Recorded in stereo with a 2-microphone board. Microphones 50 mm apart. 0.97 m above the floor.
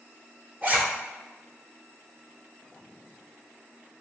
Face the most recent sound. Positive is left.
turn(degrees=-35)  # may be behind; listen again after turning